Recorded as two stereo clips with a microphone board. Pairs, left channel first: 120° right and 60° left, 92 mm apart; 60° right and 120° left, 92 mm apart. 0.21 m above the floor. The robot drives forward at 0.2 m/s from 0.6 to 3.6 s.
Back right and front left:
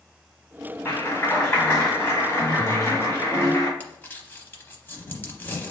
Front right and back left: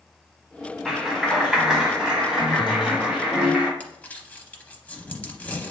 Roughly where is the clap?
Behind right.